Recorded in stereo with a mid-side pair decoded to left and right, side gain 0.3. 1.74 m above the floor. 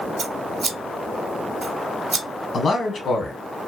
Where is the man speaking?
70° left, 1.1 m.